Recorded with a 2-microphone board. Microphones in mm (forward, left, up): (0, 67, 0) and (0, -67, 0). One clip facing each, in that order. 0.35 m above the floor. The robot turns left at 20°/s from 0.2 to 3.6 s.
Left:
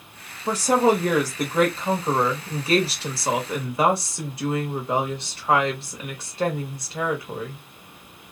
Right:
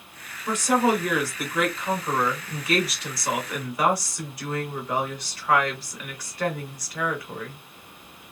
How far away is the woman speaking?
About 1.1 m.